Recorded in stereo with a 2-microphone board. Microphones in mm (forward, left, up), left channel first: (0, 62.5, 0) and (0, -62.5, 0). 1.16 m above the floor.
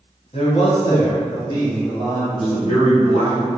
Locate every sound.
0.3 s a man speaking: 55° left (ahead or behind), 0.9 m; by 2.2 s 30° left (ahead or behind), 2 m
2.3 s a man speaking: 60° left (ahead or behind), 1.5 m